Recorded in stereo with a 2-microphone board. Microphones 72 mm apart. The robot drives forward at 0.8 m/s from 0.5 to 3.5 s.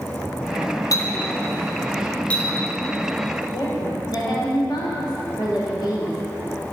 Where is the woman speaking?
75° left (ahead or behind), 3 m.